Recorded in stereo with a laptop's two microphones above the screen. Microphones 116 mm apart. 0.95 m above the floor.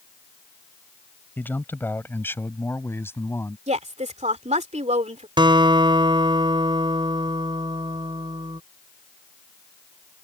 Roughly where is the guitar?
Right.